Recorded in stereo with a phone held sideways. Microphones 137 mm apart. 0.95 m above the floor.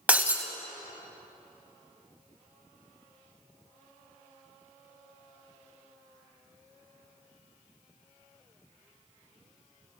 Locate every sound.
0.1 s breaking glass: 10° right (ahead or behind), 0.9 m